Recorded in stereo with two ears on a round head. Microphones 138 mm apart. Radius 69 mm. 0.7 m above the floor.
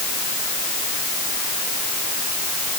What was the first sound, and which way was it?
Only background noise.